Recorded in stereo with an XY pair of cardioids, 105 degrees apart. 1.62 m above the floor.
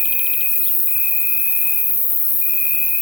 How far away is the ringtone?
No ringtone in this recording.